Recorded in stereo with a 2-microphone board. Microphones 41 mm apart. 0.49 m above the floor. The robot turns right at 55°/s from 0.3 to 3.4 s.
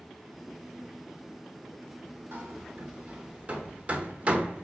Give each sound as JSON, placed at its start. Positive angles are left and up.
{"t": 2.3, "sound": "hammering", "side_deg": -50, "distance_m": 1.1}